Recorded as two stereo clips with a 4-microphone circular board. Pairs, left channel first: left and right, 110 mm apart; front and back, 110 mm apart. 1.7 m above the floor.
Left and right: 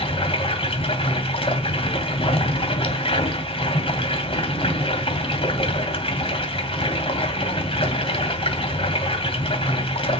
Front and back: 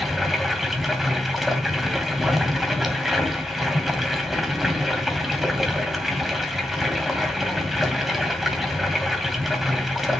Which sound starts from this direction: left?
Running water, at 0.0 s.